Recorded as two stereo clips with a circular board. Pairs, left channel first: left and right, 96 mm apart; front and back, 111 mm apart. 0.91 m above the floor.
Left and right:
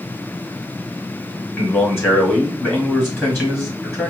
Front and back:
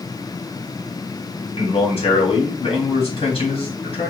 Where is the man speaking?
25° left, 1.9 m.